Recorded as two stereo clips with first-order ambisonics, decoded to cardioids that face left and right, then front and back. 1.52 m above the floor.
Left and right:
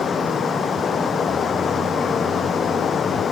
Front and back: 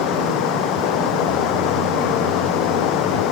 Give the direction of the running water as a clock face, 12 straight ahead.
11 o'clock.